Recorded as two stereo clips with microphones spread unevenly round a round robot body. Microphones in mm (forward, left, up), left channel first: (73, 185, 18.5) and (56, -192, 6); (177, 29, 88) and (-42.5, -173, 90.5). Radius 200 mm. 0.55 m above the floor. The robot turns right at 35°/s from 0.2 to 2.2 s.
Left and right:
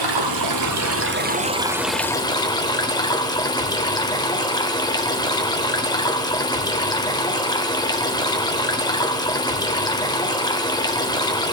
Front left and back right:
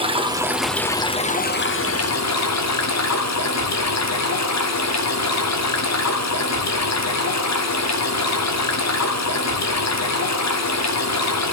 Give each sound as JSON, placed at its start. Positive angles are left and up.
{"t": 0.0, "sound": "running water", "azimuth_deg": -65, "distance_m": 1.0}